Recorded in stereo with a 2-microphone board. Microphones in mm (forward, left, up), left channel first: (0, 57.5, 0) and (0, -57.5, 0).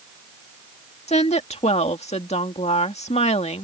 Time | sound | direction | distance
1.1 | a woman speaking | 70° left (ahead or behind) | ?